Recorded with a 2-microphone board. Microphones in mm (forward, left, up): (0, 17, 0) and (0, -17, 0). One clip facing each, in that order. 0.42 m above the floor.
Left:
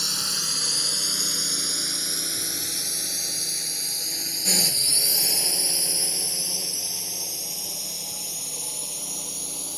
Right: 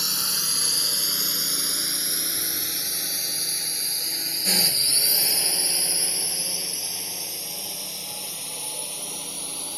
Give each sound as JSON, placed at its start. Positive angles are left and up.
{"t": 0.0, "sound": "a drone", "side_deg": -10}